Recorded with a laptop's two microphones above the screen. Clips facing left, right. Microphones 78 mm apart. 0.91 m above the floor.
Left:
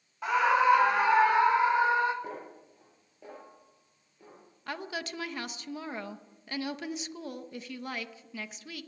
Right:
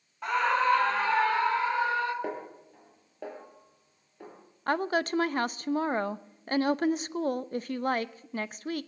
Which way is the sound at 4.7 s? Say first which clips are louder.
Right 10 dB; 45° right (ahead or behind).